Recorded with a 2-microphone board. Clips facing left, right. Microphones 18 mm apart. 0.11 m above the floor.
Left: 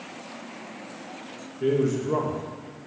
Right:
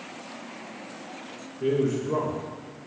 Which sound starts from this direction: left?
A man speaking, at 1.6 s.